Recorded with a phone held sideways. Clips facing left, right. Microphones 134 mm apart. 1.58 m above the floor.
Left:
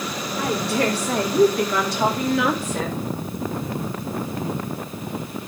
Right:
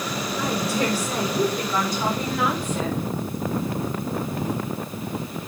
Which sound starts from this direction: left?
A woman speaking, at 0.4 s.